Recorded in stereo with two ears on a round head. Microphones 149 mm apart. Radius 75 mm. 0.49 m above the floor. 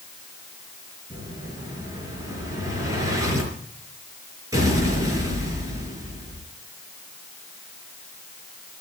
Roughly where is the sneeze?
No sneeze in this recording.